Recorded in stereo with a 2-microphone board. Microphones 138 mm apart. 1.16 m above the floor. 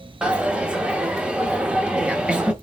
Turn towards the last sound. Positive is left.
turn(degrees=-5)  # may be behind; listen again after turning